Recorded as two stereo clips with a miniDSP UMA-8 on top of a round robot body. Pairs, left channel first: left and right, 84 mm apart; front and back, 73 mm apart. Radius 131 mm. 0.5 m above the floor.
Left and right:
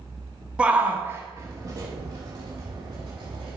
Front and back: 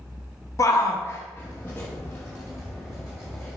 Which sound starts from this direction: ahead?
A shout, at 0.6 s.